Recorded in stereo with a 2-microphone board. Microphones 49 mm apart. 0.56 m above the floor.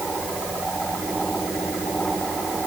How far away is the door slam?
No door slam in this recording.